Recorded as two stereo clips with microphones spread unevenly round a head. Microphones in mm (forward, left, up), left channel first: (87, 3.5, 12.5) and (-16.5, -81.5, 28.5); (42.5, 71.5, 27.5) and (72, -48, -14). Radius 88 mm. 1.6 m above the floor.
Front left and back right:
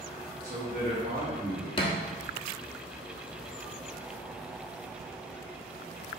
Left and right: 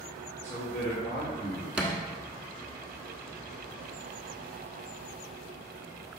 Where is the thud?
35° left, 1.2 m.